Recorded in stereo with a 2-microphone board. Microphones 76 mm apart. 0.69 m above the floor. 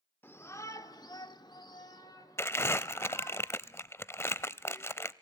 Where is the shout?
30° left (ahead or behind), 1.7 m; by 3.4 s 45° left (ahead or behind), 3.5 m.